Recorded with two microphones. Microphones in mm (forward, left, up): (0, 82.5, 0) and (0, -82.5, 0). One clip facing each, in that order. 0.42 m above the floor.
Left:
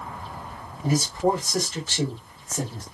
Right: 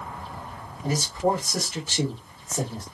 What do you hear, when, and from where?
0.8 s a man speaking: 10° left (ahead or behind), 1.2 m; by 2.8 s 35° right (ahead or behind), 1.4 m